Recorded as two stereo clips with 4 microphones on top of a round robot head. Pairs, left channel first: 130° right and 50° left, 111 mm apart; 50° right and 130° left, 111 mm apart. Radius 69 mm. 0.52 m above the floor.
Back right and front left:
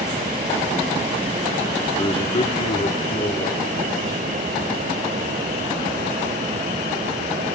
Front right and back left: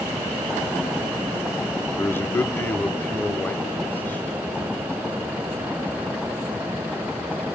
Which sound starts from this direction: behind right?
A man speaking, at 2.0 s.